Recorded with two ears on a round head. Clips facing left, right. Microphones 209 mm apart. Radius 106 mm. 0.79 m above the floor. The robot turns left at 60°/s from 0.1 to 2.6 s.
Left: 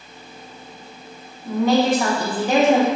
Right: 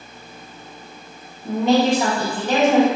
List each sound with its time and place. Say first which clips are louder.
1.4 s a woman speaking: right 1 dB; 135° right, 1.0 m; by 2.9 s 160° left, 1.0 m